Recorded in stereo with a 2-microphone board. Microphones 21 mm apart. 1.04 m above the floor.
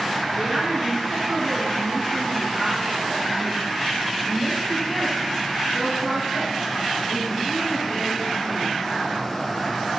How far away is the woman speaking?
About 4.5 m.